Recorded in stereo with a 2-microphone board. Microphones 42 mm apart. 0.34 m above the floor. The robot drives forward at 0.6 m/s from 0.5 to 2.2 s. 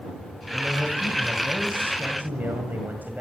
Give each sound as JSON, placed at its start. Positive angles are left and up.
{"t": 0.5, "sound": "a man speaking", "side_deg": -45, "distance_m": 1.9}